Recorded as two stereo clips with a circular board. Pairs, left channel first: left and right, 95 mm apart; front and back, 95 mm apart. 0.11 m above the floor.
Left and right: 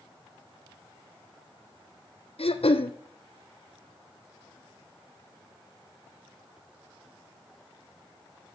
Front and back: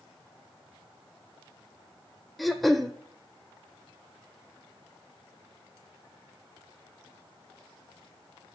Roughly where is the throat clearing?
Left.